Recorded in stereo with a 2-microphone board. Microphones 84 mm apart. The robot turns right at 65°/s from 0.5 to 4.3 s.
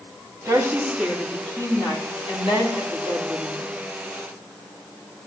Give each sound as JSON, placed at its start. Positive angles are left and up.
{"t": 0.5, "sound": "a woman speaking", "azimuth_deg": -45, "distance_m": 4.0}